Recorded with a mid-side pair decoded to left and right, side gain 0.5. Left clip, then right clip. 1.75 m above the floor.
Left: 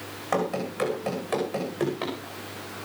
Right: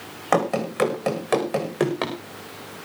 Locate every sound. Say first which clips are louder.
0.3 s running footsteps: right 6 dB; 55° right, 7 m; by 2.1 s 60° right, 8 m